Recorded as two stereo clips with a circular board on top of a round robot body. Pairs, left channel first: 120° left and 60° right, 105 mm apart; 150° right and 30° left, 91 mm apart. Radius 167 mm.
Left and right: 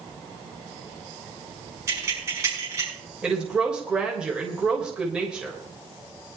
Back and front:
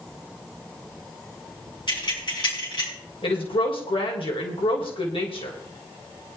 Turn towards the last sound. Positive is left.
turn(degrees=-140)